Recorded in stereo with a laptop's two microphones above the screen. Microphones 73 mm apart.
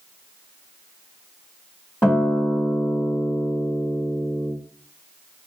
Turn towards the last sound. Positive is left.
turn(degrees=25)  # may be behind; listen again after turning